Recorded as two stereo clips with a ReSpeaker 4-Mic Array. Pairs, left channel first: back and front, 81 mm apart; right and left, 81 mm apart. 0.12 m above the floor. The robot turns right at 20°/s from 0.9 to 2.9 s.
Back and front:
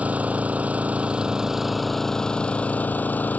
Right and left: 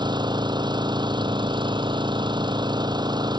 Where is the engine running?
70° left; by 3.4 s 110° left.